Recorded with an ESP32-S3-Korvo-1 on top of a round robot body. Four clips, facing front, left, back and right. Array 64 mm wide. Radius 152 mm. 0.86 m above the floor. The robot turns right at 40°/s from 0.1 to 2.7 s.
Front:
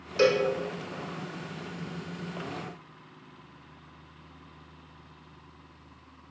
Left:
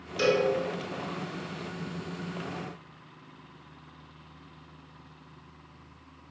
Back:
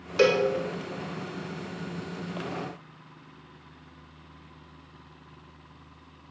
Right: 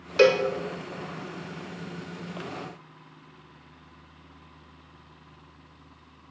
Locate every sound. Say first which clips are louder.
0.2 s a cowbell: right 6 dB, back 2 dB; 105° right, 1.7 m; by 0.5 s 95° right, 1.7 m